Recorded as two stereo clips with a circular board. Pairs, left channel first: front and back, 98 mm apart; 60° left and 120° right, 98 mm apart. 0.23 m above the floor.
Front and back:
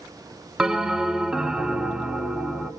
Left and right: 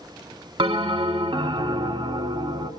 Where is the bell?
95° right, 0.6 m.